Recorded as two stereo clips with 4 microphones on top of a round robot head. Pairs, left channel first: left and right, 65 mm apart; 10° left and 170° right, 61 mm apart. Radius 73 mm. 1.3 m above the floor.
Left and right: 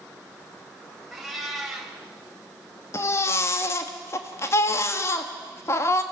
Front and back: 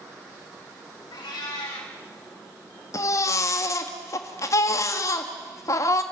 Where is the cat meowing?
Straight ahead, 4 m.